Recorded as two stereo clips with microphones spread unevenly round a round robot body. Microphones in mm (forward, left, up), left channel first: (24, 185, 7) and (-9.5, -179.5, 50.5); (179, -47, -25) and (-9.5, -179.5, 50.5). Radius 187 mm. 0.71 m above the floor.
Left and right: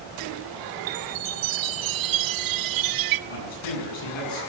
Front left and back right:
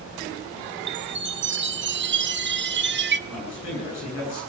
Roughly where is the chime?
Right.